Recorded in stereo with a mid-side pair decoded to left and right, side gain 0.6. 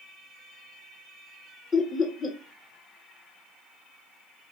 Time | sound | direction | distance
1.7 | laughter | 35° left | 0.8 m